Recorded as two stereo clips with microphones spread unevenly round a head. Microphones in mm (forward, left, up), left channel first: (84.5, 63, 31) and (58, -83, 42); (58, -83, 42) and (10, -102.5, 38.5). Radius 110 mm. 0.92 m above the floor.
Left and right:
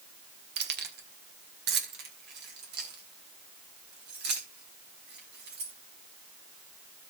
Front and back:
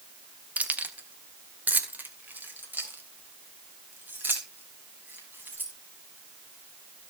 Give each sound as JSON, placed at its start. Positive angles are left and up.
{"t": 0.6, "sound": "keys jangling", "azimuth_deg": -100, "distance_m": 1.3}